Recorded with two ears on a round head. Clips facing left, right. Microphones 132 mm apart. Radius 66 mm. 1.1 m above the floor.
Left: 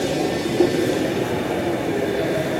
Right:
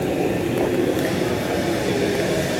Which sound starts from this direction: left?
Knocking, at 0.6 s.